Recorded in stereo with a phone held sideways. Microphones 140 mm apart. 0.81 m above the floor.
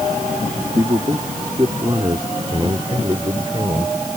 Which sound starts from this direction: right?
A man speaking, at 0.8 s.